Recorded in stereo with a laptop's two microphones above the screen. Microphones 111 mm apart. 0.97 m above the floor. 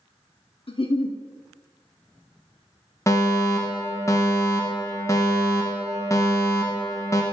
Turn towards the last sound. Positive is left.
turn(degrees=25)  # may be behind; listen again after turning